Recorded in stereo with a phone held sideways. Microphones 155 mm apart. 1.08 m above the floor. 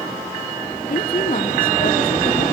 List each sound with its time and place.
0.9 s a woman speaking: 70° left (ahead or behind), 2.5 m